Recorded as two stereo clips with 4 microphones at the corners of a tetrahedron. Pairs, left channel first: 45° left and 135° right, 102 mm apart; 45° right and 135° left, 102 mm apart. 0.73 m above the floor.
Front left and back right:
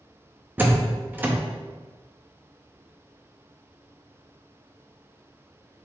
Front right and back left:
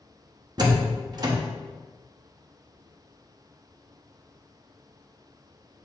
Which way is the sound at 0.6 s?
160° left.